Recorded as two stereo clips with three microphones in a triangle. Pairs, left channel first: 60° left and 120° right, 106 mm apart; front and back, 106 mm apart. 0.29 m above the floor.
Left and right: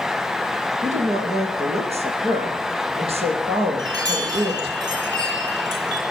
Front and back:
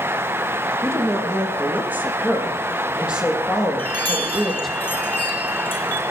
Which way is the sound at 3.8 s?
70° right.